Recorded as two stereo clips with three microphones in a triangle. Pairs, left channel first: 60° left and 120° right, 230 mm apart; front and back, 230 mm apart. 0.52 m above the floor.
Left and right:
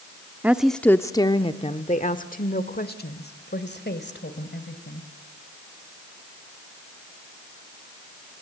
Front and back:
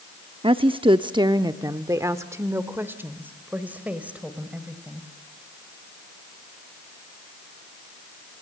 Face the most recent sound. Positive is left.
turn(degrees=95)